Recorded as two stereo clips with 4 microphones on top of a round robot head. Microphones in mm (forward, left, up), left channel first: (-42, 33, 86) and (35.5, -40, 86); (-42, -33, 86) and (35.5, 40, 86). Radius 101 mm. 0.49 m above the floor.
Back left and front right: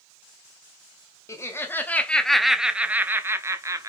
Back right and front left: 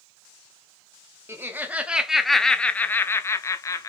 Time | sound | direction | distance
1.3 | laughter | 95° left | 1.0 m